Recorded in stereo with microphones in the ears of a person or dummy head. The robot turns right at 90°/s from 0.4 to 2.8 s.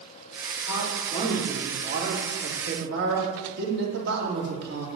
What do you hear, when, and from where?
0.7 s a man speaking: 110° left, 2.5 m; by 4.9 s 60° right, 2.5 m